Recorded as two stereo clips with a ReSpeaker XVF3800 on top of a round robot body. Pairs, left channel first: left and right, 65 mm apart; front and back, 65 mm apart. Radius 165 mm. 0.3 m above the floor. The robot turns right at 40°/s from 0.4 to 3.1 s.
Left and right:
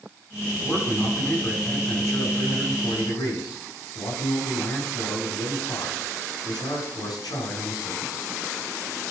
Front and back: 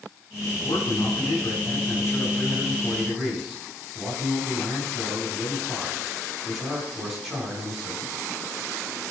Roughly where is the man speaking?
Ahead.